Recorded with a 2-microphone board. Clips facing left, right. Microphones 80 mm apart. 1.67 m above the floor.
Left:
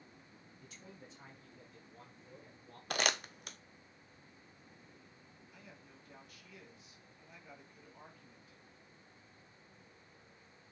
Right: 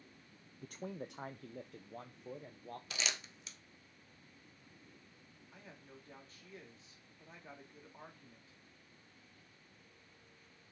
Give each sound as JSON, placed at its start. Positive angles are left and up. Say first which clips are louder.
{"t": 0.6, "sound": "a man speaking", "louder": "right 12 dB", "side_deg": -45, "distance_m": 0.5}
{"t": 2.9, "sound": "crumpling", "louder": "left 9 dB", "side_deg": 55, "distance_m": 0.7}
{"t": 5.5, "sound": "a man speaking", "louder": "right 3 dB", "side_deg": -35, "distance_m": 3.0}